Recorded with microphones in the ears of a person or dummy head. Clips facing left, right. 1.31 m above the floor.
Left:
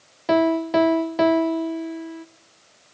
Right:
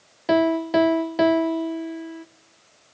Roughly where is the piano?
Centre.